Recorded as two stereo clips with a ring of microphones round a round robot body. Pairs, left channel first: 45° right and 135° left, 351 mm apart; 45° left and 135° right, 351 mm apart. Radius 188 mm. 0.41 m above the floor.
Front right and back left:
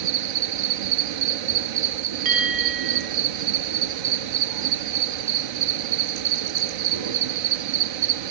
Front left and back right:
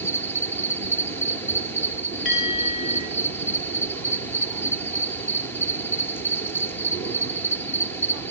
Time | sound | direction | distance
0.0 | an insect | 130° left | 1.2 m
2.2 | a bell | 100° left | 9 m